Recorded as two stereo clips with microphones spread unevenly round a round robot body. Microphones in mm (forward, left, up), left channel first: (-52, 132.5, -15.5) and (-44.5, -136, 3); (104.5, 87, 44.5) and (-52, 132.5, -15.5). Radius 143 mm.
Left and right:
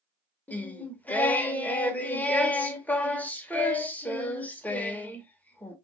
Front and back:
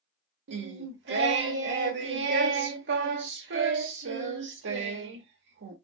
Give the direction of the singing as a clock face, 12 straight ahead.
6 o'clock.